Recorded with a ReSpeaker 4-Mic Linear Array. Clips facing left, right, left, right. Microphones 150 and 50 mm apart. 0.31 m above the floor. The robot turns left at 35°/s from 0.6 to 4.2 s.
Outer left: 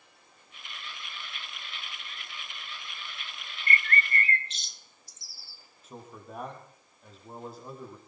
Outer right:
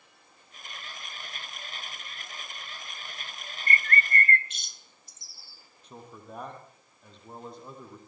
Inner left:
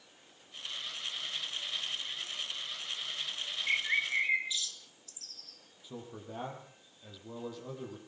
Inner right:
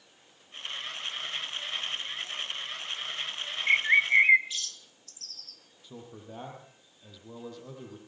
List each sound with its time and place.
3.7 s a bird: 35° right (ahead or behind), 1.4 m; by 5.6 s 55° right (ahead or behind), 1.4 m
5.8 s a man speaking: 5° left (ahead or behind), 8 m